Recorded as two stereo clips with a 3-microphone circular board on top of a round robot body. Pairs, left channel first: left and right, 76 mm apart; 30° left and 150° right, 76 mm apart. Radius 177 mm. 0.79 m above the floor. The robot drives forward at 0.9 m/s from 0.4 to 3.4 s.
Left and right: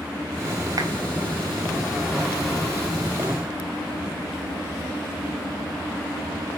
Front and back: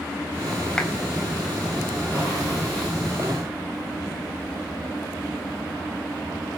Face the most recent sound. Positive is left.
turn(degrees=-90)